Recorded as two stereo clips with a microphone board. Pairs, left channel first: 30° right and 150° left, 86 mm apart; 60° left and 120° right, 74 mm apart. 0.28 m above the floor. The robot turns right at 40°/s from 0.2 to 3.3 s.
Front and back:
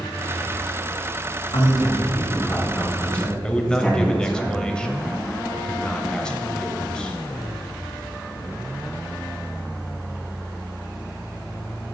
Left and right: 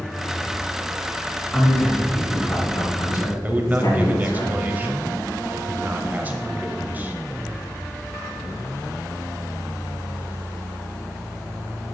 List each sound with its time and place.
1.5 s a man speaking: 25° right, 3 m; by 4.4 s 50° left, 3 m
3.4 s a man speaking: 95° right, 0.9 m